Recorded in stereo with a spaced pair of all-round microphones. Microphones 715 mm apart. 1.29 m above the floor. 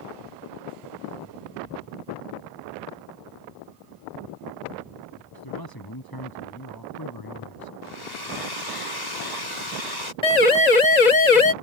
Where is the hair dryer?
70° left (ahead or behind).